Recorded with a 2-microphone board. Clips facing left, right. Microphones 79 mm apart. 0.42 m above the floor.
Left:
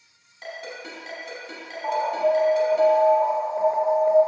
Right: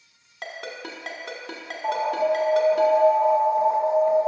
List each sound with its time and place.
0.4 s a ringtone: 75° right (ahead or behind), 1.3 m
1.8 s an alarm: 15° left (ahead or behind), 1.6 m